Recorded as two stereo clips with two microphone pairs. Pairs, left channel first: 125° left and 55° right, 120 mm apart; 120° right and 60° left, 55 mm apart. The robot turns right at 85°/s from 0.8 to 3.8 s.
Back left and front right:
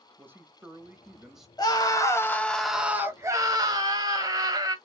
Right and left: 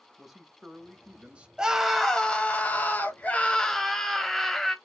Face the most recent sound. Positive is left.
turn(degrees=-45)